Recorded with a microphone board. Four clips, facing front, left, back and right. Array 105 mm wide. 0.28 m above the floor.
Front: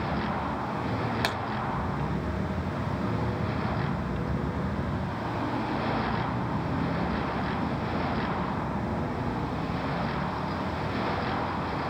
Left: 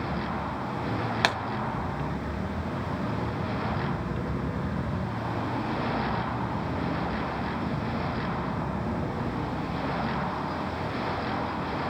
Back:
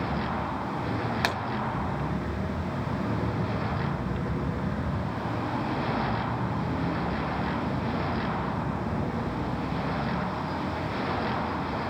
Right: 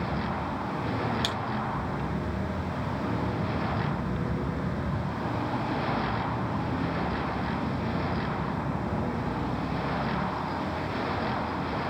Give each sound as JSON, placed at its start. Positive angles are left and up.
{"t": 1.2, "sound": "a pop", "azimuth_deg": 100, "distance_m": 1.3}